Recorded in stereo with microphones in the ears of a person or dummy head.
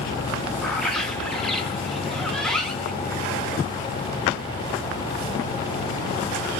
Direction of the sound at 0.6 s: Centre (ahead or behind).